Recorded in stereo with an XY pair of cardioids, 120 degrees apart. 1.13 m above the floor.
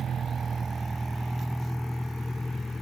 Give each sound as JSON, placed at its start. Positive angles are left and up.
{"t": 0.0, "sound": "a vehicle", "azimuth_deg": -45}